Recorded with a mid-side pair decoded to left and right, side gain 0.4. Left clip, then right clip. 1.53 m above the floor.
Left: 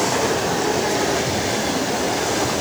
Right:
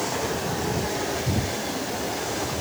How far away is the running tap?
I don't hear a running tap.